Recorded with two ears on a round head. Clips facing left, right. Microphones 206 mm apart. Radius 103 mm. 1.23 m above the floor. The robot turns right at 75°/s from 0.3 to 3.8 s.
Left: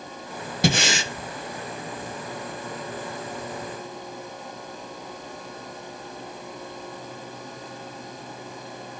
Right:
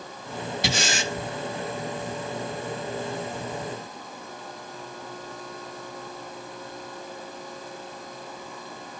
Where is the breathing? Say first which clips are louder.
Left 6 dB; 40° left, 1.0 m; by 1.1 s 75° left, 1.0 m.